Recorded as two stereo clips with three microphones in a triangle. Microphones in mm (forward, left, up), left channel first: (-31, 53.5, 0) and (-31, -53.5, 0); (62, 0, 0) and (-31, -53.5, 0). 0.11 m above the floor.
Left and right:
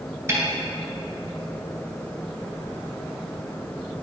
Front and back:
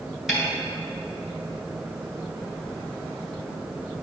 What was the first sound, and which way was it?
A snare drum, 70° right.